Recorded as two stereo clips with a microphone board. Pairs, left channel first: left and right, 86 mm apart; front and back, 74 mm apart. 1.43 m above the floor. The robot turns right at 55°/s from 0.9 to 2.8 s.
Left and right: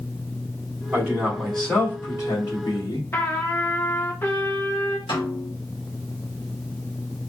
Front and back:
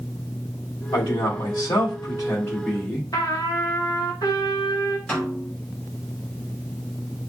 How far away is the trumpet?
About 1.0 m.